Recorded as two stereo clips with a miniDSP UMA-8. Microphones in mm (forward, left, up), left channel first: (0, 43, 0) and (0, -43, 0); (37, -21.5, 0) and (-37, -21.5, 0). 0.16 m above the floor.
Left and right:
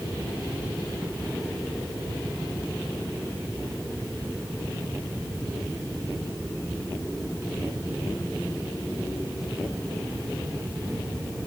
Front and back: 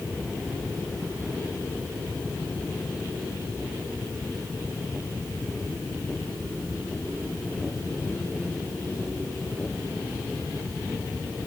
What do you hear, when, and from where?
Only background noise.